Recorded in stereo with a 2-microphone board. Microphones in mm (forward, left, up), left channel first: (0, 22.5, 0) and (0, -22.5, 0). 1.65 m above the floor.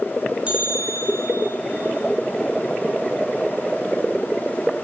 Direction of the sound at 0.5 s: 25° right (ahead or behind).